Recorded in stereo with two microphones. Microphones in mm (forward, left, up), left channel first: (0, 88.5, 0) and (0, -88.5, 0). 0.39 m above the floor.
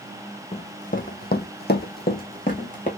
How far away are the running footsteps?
About 0.8 m.